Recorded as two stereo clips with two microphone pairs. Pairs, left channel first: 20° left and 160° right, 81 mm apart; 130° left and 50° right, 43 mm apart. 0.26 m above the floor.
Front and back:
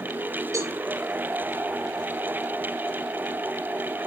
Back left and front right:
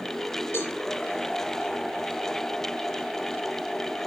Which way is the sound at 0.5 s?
155° left.